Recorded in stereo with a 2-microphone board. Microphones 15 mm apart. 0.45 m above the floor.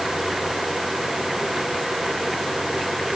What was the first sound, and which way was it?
Only background noise.